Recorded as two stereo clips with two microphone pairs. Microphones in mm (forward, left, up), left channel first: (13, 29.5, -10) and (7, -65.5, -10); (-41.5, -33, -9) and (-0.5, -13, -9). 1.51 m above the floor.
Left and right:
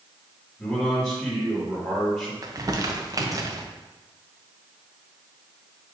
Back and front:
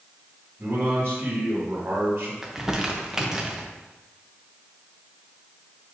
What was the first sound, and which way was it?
A man speaking, 20° left.